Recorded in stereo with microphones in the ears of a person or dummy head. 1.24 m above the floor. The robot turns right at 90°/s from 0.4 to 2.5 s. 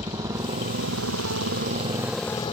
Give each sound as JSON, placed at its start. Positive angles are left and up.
{"t": 0.0, "sound": "a motorcycle", "azimuth_deg": -160}